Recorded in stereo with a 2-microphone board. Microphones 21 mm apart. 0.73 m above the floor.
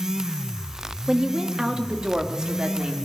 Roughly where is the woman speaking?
Right.